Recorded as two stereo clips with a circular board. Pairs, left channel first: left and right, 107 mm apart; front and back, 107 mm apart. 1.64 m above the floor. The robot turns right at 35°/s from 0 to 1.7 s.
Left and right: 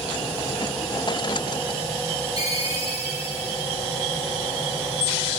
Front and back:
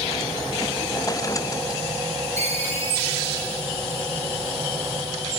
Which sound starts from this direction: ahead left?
A ringtone, at 2.4 s.